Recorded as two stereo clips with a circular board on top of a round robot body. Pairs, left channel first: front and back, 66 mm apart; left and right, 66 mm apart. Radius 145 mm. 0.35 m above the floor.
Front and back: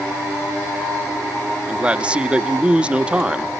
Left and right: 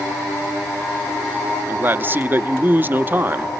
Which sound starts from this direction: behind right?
A man speaking, at 1.7 s.